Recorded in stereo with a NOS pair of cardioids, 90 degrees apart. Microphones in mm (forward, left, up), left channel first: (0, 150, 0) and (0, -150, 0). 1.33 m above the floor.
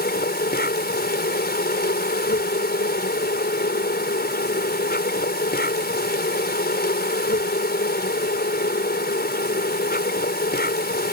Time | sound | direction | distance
0.0 | an insect | 30° left | ?